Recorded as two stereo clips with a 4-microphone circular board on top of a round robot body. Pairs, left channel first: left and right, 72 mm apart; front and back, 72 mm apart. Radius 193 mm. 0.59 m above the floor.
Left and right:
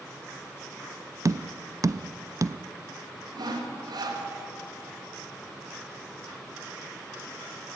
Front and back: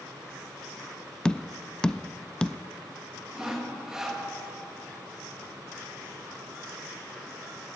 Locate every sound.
1.2 s tapping: 75° right, 0.6 m
3.4 s sawing: 100° right, 2 m